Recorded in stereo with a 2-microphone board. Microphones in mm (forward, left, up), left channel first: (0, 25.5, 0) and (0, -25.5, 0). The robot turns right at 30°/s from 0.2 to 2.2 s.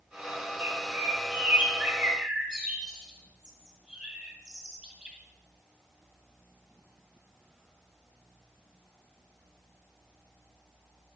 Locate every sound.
0.6 s a bird: 45° right (ahead or behind), 1.7 m; by 5.2 s 15° right (ahead or behind), 1.7 m